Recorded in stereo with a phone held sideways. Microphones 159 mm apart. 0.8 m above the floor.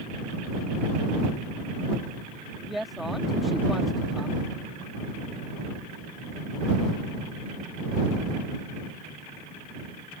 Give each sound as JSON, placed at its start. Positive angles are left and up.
{"t": 2.6, "sound": "a woman speaking", "side_deg": 0}